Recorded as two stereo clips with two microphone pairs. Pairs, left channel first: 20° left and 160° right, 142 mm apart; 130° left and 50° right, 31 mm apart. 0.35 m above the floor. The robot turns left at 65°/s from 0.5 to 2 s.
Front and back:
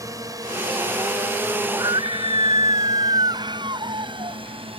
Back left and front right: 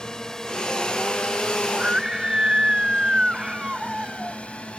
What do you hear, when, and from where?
0.0 s a drone: 165° left
1.7 s a scream: 95° right; by 4.4 s 115° right